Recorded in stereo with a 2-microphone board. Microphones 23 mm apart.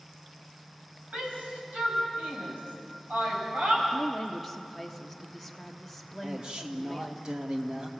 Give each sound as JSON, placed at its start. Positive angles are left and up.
{"t": 1.1, "sound": "a shout", "side_deg": -80, "distance_m": 7.0}
{"t": 3.9, "sound": "a woman speaking", "side_deg": 5, "distance_m": 1.5}
{"t": 6.2, "sound": "a man speaking", "side_deg": -40, "distance_m": 1.8}